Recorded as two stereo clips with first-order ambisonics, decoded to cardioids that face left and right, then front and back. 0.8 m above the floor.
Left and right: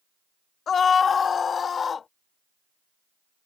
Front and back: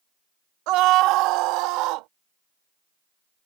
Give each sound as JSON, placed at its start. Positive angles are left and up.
{"t": 0.7, "sound": "a scream", "azimuth_deg": 155}